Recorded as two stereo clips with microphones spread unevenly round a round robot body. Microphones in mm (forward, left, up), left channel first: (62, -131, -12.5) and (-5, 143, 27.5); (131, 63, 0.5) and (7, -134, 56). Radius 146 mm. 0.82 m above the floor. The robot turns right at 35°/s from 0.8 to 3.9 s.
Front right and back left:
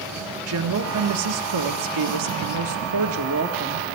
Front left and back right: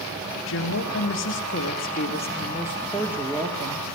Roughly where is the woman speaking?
Ahead left.